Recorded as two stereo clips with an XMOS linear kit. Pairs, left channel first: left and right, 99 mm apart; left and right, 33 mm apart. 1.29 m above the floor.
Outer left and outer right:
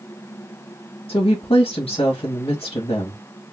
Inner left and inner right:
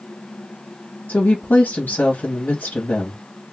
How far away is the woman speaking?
About 1.1 m.